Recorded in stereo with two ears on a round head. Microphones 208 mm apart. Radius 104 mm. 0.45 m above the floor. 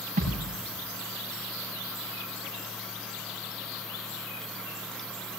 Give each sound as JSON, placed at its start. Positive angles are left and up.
{"t": 0.2, "sound": "a thud", "side_deg": -35, "distance_m": 9.0}